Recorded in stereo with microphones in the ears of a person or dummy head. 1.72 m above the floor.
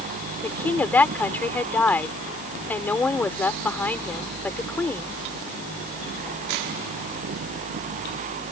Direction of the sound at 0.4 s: 15° left (ahead or behind).